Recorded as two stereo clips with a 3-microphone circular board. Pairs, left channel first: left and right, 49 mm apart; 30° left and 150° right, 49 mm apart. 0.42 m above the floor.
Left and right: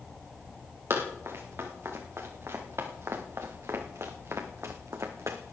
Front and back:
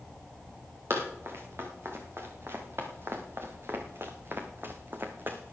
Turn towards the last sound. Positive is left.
turn(degrees=-105)